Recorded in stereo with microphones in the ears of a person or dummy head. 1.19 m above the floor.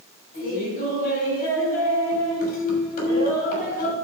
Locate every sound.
0.3 s laughter: 50° left (ahead or behind), 6.5 m